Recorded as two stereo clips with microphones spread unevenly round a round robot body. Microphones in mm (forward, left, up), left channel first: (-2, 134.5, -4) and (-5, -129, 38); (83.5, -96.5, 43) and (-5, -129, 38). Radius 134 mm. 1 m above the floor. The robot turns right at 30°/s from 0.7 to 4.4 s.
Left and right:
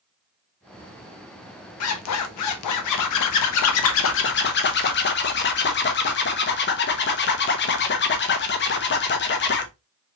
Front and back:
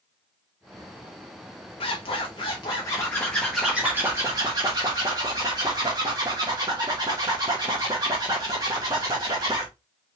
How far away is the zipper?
About 0.9 m.